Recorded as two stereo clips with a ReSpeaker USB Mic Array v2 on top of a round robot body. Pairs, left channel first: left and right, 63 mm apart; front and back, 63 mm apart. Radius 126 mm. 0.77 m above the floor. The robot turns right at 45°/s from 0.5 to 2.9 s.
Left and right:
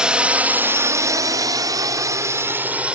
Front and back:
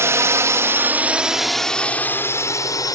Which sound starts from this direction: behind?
A drone, at 0.0 s.